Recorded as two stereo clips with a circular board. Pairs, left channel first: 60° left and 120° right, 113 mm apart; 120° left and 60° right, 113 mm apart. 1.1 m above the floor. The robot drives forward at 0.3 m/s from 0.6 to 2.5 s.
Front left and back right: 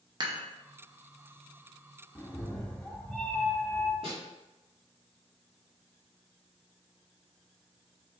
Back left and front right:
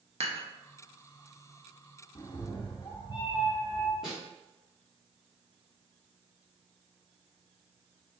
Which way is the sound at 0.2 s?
75° right.